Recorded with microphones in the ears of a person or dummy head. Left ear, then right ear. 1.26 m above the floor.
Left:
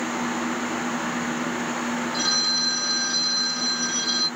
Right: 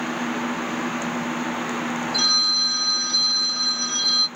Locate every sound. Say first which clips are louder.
2.1 s a phone ringing: right 4 dB; 55° right (ahead or behind), 1.6 m